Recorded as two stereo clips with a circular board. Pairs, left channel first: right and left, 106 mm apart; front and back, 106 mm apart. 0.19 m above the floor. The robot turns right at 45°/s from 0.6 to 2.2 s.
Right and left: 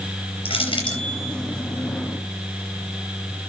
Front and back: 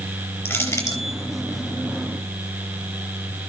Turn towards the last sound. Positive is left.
turn(degrees=0)